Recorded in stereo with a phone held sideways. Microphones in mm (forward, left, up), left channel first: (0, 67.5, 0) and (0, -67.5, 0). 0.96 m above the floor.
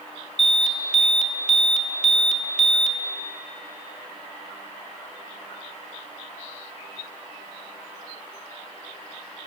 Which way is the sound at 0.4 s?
60° left (ahead or behind).